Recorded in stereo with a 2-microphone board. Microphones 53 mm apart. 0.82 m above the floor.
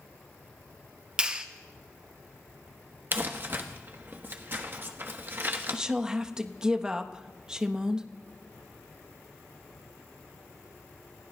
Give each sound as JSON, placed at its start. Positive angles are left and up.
{"t": 1.2, "sound": "a clap", "side_deg": -20, "distance_m": 1.0}
{"t": 3.1, "sound": "crumpling", "side_deg": -40, "distance_m": 1.1}
{"t": 5.7, "sound": "a woman speaking", "side_deg": -15, "distance_m": 0.9}